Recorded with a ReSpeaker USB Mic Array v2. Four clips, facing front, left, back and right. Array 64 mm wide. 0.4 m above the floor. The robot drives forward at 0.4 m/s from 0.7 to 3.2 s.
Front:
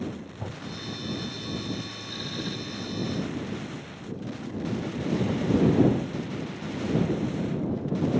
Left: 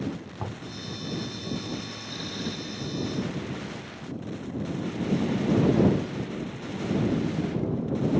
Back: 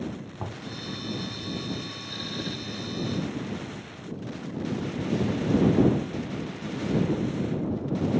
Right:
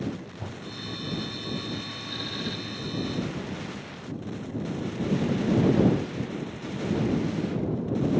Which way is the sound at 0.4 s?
130° left.